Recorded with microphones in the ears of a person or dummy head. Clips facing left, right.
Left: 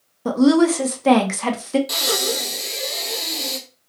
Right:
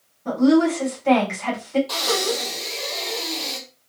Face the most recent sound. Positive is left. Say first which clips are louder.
# right 1 dB
turn(degrees=25)  # may be behind; listen again after turning